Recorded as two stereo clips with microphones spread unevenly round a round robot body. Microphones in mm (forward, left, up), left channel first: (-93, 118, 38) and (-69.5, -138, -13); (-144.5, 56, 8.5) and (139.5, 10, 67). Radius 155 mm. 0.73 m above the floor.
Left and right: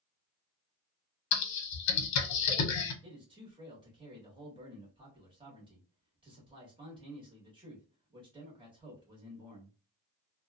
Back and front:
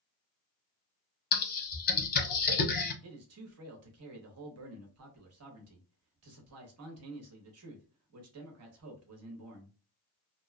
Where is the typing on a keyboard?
120° left, 0.7 m.